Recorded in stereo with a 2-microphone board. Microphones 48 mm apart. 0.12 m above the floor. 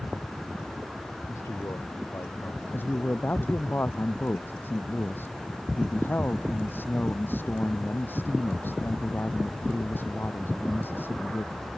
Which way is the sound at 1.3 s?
70° left (ahead or behind).